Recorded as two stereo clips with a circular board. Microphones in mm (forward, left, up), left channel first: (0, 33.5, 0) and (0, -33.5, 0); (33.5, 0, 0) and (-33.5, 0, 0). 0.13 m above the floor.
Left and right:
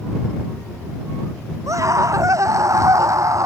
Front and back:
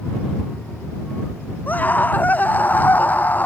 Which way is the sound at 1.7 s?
60° right.